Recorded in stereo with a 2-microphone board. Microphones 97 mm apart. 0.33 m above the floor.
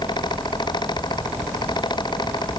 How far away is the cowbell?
I don't hear a cowbell.